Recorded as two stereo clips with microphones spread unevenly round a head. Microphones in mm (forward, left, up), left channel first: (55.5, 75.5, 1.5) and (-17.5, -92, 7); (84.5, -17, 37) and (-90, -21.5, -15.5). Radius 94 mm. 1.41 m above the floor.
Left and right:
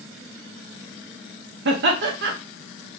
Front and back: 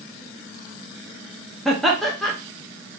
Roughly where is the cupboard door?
I don't hear a cupboard door.